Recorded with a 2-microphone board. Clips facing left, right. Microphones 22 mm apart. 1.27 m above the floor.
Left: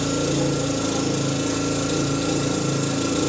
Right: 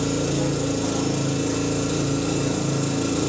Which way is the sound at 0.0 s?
30° left (ahead or behind).